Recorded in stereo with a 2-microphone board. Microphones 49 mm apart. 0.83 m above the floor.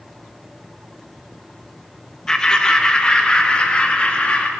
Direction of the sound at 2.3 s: 15° left (ahead or behind).